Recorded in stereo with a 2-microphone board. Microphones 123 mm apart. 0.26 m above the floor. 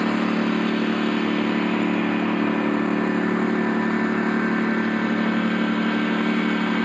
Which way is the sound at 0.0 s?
Centre (ahead or behind).